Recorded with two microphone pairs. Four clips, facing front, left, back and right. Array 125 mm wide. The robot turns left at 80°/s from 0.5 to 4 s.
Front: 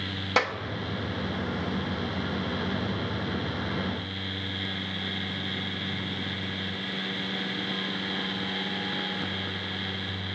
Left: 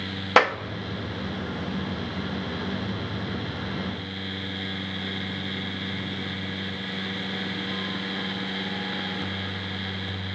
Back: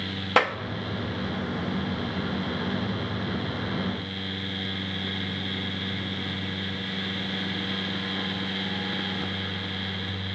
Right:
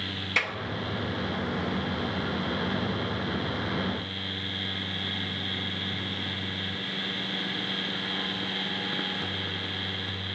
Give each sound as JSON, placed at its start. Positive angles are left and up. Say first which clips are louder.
{"t": 0.4, "sound": "a clap", "louder": "left 14 dB, back 4 dB", "azimuth_deg": 110, "distance_m": 1.0}